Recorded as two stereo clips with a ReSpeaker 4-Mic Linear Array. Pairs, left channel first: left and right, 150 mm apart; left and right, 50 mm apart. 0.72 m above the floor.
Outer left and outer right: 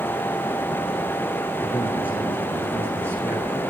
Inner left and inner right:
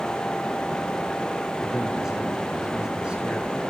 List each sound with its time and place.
1.6 s a man speaking: 10° right (ahead or behind), 7 m; by 3.6 s 20° right (ahead or behind), 7 m